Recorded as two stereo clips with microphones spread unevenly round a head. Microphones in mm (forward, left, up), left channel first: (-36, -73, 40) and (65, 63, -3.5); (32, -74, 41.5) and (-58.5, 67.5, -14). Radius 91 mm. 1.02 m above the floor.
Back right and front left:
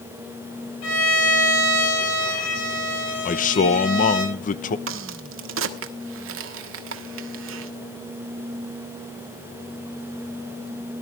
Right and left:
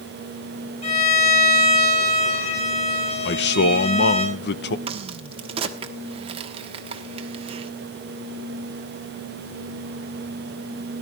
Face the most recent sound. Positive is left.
turn(degrees=60)